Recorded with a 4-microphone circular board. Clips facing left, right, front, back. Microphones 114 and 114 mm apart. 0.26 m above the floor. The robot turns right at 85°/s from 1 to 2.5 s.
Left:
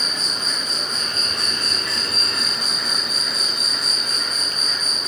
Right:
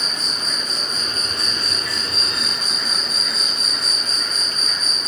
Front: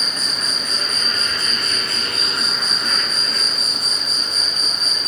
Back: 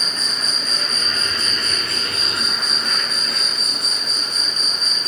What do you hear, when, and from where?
0.0 s an insect: 80° left, 1.1 m; by 5.1 s 155° right, 1.1 m